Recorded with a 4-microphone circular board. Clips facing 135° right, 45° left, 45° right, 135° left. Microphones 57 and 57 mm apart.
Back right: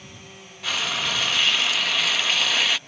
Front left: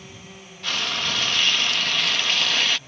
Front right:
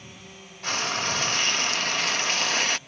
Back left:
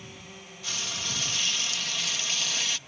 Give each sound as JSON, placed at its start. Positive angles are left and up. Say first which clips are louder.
{"t": 0.6, "sound": "frying", "louder": "even, front right 9 dB", "azimuth_deg": -50}